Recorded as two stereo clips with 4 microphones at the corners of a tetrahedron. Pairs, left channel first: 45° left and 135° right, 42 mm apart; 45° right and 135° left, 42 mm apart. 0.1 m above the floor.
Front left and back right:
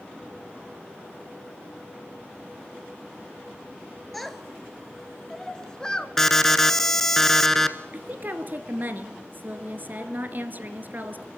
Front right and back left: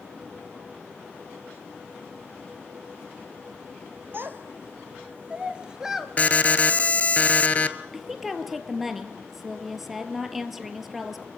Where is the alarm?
30° right, 1.2 m.